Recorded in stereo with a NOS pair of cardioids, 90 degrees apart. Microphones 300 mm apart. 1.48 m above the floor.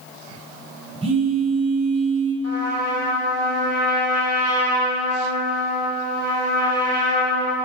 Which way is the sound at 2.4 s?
55° left.